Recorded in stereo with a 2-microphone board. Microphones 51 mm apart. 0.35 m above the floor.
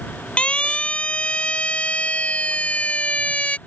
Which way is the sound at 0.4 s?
25° left (ahead or behind).